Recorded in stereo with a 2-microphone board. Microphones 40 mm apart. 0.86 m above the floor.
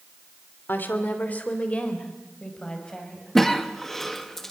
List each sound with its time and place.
0.7 s a woman speaking: 55° left (ahead or behind), 2.5 m; by 3.4 s 15° left (ahead or behind), 5.5 m
3.4 s a cough: 10° left (ahead or behind), 1.2 m